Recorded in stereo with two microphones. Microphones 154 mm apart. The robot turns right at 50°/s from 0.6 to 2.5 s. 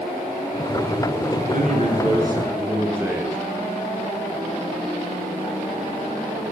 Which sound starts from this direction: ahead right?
A man speaking, at 1.5 s.